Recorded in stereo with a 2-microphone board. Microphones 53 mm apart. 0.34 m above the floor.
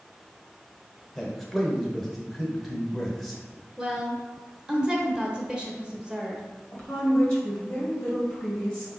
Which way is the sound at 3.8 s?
15° right (ahead or behind).